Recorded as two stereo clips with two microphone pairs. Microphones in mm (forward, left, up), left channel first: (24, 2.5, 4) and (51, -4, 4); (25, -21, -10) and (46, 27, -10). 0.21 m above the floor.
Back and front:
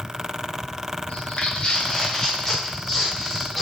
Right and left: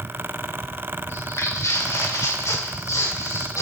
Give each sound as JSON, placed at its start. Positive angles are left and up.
{"t": 1.1, "sound": "footsteps", "azimuth_deg": -150, "distance_m": 1.2}